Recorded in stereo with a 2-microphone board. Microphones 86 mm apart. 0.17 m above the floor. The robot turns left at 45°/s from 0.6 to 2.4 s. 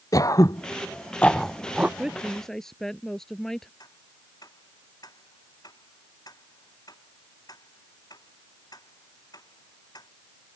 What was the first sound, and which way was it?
Throat clearing, 45° left (ahead or behind).